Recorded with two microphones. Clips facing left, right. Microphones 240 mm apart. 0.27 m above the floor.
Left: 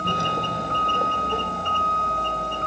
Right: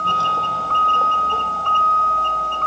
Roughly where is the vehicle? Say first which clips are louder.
Left 1 dB; centre.